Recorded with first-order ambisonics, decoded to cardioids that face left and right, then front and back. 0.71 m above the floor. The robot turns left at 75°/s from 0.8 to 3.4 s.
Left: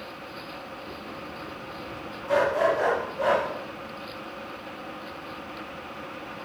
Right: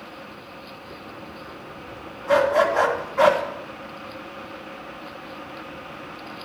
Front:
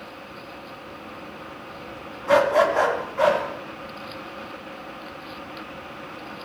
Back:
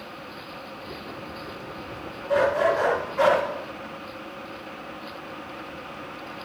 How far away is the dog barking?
About 3 m.